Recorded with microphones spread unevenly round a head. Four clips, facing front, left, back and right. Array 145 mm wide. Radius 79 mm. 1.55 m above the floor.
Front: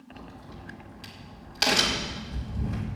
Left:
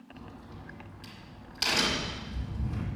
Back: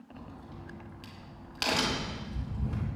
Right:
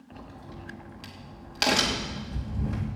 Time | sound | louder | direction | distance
0.1 | a crack | right 4 dB, front 2 dB | 75° right | 3 m